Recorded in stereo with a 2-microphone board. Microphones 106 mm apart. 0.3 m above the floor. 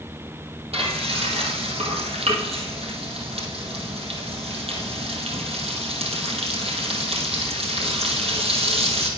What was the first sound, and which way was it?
Frying, 70° right (ahead or behind).